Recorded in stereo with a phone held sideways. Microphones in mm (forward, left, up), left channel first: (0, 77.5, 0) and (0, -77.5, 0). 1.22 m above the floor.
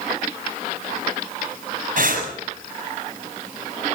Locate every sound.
2.0 s breathing: 60° right (ahead or behind), 7 m